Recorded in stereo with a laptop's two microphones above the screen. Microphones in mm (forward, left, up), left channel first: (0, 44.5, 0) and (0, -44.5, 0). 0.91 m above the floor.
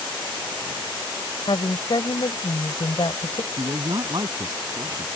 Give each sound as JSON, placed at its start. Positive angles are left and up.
{"t": 1.5, "sound": "a woman speaking", "side_deg": 60}
{"t": 3.5, "sound": "a man speaking", "side_deg": -50}